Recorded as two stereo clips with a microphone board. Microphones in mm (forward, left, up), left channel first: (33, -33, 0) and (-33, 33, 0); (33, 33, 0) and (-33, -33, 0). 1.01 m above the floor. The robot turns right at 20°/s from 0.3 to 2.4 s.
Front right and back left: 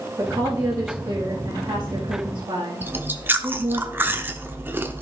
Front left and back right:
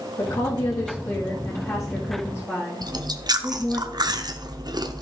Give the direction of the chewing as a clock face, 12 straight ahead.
5 o'clock.